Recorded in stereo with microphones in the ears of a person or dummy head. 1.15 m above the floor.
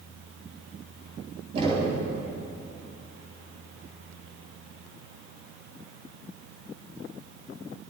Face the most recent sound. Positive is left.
turn(degrees=-30)  # may be behind; listen again after turning